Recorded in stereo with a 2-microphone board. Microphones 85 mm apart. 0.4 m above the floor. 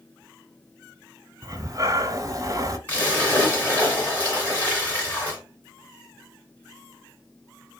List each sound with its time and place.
1.4 s breathing: 40° right (ahead or behind), 0.6 m
2.9 s a splash: 20° left (ahead or behind), 2.5 m